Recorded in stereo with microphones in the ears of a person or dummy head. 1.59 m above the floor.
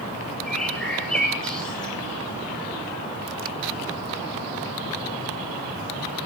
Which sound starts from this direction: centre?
A bird, at 0.5 s.